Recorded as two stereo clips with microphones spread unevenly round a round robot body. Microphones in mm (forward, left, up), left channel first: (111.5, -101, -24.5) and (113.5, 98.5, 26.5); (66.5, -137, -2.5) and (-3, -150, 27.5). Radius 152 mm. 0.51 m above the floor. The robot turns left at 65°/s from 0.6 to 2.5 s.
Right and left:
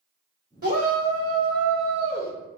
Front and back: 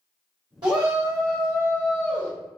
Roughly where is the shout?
Behind left.